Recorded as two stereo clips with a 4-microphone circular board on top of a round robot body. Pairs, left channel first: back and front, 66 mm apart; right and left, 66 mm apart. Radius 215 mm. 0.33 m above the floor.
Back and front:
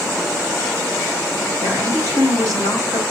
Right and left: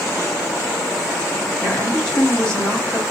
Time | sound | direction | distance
1.6 | a woman speaking | 15° right | 2 m